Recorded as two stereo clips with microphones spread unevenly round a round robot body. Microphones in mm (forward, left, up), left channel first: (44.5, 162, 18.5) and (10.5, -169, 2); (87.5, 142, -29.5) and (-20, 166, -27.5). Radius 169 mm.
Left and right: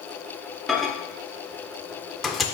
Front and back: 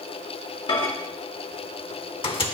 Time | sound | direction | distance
0.7 | a microwave | 10° right | 0.8 m